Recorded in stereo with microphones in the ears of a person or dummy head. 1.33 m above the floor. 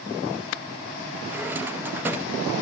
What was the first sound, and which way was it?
A drawer, 15° right (ahead or behind).